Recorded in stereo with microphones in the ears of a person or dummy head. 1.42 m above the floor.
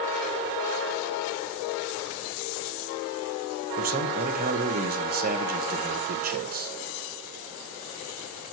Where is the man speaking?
45° right (ahead or behind), 1.3 m.